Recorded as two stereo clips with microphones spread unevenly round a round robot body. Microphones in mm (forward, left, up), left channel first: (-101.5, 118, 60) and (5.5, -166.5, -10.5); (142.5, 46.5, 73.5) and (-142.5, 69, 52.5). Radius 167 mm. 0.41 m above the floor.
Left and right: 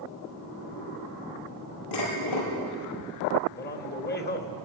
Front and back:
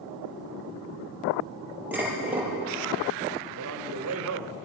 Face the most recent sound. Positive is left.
turn(degrees=170)